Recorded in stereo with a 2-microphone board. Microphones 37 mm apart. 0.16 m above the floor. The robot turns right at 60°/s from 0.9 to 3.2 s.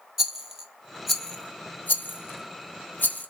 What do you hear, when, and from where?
0.2 s a rattle: 10° right (ahead or behind), 1.2 m; by 3.3 s 50° left (ahead or behind), 1.2 m